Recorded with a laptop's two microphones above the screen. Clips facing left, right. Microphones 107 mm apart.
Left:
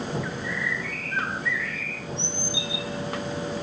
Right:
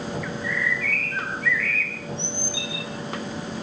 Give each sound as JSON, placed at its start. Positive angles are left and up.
{"t": 0.2, "sound": "a bird", "side_deg": 20, "distance_m": 4.5}